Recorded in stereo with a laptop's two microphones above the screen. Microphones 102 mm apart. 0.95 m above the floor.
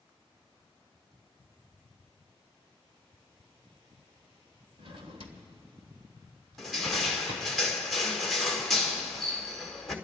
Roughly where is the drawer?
Right.